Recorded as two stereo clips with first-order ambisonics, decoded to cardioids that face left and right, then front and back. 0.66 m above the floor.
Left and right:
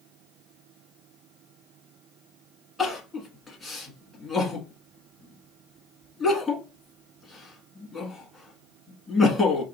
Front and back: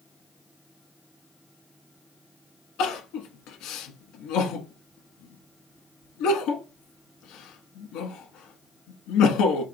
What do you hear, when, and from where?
2.8 s crying: 5° left, 1.1 m